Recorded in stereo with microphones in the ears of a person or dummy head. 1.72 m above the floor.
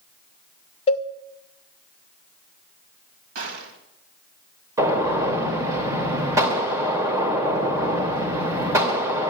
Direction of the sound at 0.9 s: 25° left (ahead or behind).